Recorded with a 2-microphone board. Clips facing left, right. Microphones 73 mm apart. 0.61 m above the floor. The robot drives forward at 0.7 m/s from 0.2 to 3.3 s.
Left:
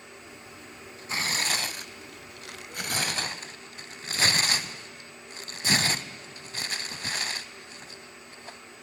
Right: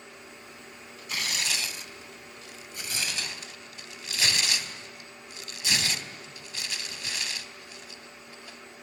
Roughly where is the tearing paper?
Left.